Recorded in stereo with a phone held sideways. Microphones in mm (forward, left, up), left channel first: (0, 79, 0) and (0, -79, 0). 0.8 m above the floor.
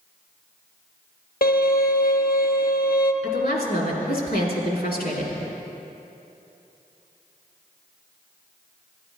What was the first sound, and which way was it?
A violin, 70° left (ahead or behind).